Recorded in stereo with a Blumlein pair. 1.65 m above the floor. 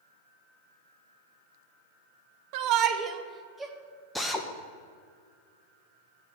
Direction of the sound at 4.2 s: Straight ahead.